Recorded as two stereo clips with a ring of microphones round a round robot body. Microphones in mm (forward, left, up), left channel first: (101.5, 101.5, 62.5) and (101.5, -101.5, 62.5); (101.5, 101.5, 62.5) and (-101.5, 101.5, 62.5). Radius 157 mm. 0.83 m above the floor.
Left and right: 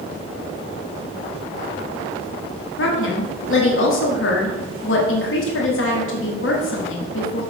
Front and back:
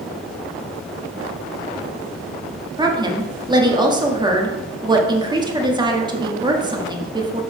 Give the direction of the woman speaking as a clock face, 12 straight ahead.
8 o'clock.